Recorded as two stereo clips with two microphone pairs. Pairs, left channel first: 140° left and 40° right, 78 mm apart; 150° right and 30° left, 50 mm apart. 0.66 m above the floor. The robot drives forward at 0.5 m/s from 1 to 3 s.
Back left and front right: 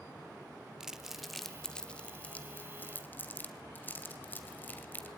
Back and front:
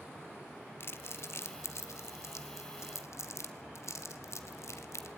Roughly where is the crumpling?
Behind right.